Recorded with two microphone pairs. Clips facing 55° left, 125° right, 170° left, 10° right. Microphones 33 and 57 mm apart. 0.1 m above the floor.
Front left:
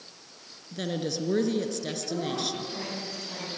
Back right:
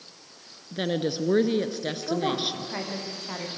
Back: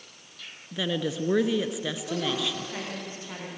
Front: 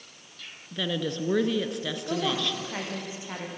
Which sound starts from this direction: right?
A woman speaking, at 2.1 s.